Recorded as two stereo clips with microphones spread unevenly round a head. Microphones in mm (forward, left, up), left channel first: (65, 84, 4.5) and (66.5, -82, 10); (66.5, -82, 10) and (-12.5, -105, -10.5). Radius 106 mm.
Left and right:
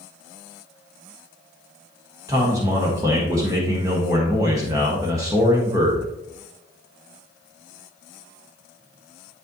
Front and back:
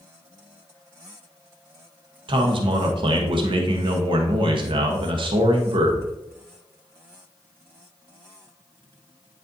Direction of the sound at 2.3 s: 165° right.